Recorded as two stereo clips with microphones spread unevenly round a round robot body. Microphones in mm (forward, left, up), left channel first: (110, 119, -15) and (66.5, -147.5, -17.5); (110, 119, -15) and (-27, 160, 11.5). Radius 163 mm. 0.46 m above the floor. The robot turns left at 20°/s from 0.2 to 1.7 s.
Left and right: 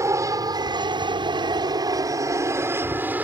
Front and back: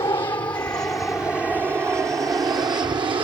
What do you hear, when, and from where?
0.0 s an aircraft: 35° right; by 3.2 s 175° right